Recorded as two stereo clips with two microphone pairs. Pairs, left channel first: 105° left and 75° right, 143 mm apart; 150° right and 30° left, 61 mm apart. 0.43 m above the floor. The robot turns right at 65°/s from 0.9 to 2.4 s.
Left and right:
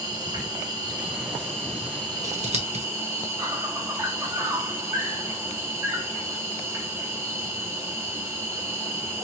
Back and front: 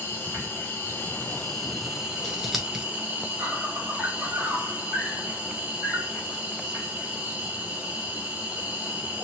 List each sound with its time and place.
0.0 s an insect: 120° right, 2.5 m; by 9.2 s 25° right, 2.5 m
2.2 s scissors: 70° right, 1.0 m; by 2.9 s 55° right, 1.0 m